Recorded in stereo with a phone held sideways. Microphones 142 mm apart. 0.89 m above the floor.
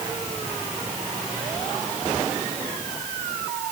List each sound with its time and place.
Only background noise.